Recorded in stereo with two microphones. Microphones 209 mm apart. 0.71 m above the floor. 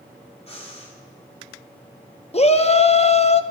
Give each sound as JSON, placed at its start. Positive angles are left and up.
{"t": 0.5, "sound": "breathing", "side_deg": 30, "distance_m": 2.5}
{"t": 2.3, "sound": "a shout", "side_deg": 30, "distance_m": 0.6}